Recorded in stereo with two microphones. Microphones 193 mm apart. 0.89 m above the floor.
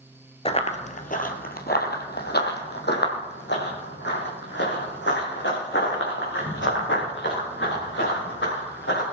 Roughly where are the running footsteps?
Left.